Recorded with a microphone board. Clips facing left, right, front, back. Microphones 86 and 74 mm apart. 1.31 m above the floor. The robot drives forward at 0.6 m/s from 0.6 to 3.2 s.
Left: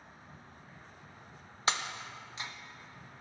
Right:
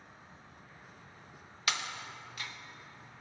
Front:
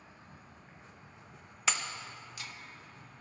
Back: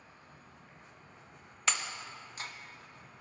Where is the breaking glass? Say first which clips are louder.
Left 3 dB, even; 80° left, 0.5 m; by 2.5 s 150° left, 0.7 m.